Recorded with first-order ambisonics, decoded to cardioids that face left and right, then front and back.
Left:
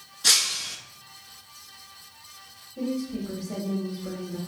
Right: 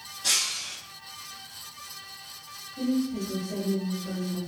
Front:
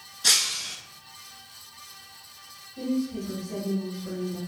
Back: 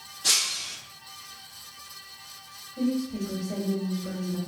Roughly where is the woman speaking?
Behind left.